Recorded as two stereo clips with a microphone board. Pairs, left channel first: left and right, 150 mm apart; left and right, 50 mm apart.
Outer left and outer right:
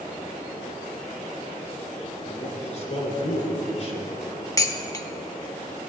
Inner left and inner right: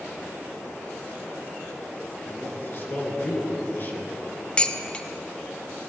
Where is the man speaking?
45° left (ahead or behind), 3.5 m.